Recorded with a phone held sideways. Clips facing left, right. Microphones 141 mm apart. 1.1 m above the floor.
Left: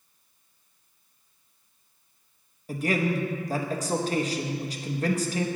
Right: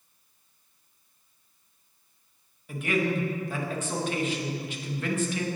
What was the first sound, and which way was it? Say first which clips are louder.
A man speaking: left 1 dB; 35° left (ahead or behind).